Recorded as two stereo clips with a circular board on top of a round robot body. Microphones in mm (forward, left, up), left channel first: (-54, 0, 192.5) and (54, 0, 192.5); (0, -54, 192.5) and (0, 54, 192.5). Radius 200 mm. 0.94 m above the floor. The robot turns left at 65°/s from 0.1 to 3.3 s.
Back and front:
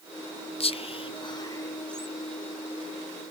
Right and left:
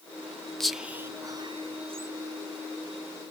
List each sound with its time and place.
0.6 s whispering: 175° right, 0.6 m; by 2.1 s 90° left, 0.6 m